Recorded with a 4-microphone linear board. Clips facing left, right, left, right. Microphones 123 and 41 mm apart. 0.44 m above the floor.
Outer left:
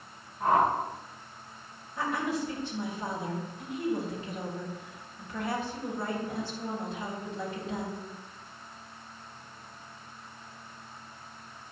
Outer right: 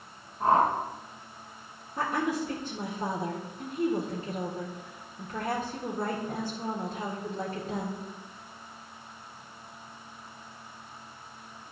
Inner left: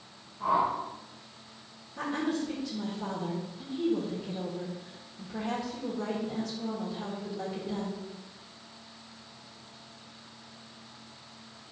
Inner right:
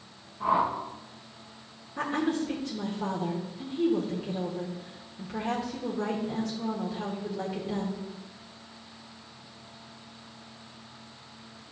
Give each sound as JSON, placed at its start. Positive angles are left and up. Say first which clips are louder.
{"t": 0.4, "sound": "a whoosh", "louder": "outer right 1 dB, inner right 1 dB", "side_deg": -30, "distance_m": 2.5}
{"t": 2.0, "sound": "a woman speaking", "louder": "outer right 2 dB, inner right 3 dB", "side_deg": -40, "distance_m": 1.8}